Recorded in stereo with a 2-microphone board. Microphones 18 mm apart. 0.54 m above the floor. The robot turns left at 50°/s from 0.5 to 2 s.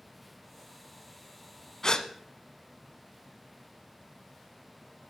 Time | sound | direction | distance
1.8 | a gasp | 40° left (ahead or behind) | 0.8 m